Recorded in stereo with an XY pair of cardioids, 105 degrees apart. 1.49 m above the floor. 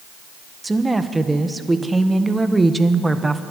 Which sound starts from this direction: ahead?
A woman speaking, at 0.6 s.